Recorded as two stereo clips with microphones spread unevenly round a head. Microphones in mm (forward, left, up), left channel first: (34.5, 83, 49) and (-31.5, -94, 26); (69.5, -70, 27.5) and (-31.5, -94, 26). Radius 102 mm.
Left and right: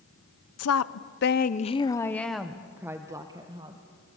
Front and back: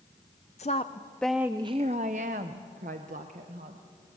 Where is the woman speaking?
65° left, 0.8 m; by 3.8 s straight behind, 1.6 m.